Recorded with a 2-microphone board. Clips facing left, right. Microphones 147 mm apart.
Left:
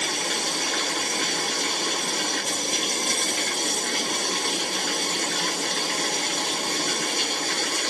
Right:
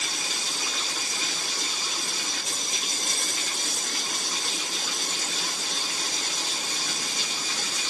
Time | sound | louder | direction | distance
0.0 | running water | left 8 dB | 60° left (ahead or behind) | ?